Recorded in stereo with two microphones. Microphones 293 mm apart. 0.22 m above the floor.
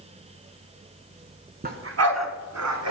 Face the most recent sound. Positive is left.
turn(degrees=-65)  # may be behind; listen again after turning